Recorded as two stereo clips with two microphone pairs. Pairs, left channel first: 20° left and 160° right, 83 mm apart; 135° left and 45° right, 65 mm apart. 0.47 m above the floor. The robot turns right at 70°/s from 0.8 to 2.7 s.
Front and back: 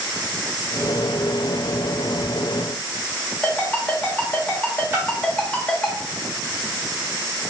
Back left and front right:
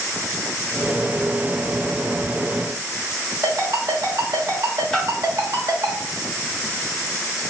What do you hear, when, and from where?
3.4 s a ringtone: 50° right, 1.0 m
4.9 s a splash: 160° right, 0.7 m